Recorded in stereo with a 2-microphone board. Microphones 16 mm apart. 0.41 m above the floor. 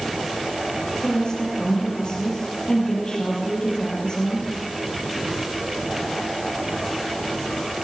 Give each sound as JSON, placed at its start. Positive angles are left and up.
{"t": 1.0, "sound": "a woman speaking", "side_deg": 50, "distance_m": 9.0}